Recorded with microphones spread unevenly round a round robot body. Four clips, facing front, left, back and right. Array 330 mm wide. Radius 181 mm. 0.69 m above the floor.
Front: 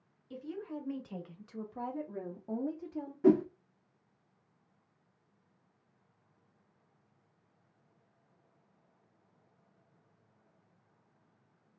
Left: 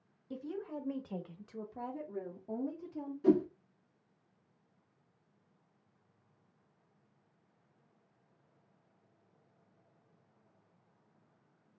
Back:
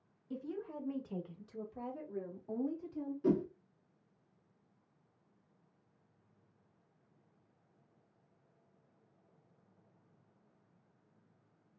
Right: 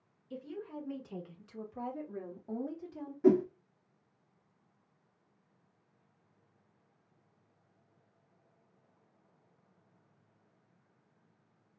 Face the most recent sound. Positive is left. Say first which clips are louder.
# right 2 dB, front 7 dB
turn(degrees=-25)